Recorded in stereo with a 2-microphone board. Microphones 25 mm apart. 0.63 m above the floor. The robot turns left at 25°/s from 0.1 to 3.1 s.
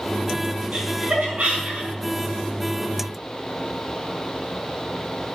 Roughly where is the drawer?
No drawer in this recording.